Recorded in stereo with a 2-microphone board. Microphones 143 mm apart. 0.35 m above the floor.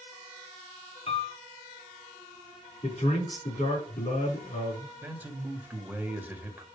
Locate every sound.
1.1 s a piano: 45° left (ahead or behind), 1.1 m
2.8 s a man speaking: 55° left (ahead or behind), 5 m
5.0 s a man speaking: 15° right (ahead or behind), 1.1 m